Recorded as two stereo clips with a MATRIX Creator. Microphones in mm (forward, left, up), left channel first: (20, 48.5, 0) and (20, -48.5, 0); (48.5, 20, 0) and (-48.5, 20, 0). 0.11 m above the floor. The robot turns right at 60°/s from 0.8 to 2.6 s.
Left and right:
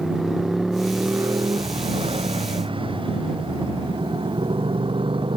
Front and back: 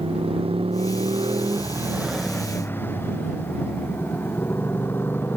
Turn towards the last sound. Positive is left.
turn(degrees=-70)